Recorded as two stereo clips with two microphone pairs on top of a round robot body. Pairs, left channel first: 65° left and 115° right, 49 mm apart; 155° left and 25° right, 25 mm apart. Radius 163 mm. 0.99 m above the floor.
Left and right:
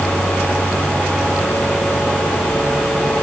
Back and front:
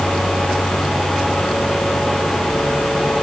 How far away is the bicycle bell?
No bicycle bell in this recording.